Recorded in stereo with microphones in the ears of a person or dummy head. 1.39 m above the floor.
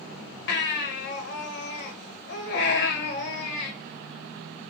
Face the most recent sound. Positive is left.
turn(degrees=65)  # may be behind; listen again after turning